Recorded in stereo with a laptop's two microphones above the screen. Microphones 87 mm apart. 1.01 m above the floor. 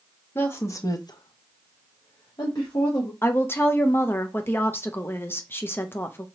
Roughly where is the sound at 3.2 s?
Left.